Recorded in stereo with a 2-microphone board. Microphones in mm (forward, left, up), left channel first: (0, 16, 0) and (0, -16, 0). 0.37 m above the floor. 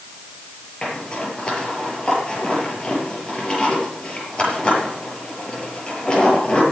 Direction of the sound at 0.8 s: 30° left (ahead or behind).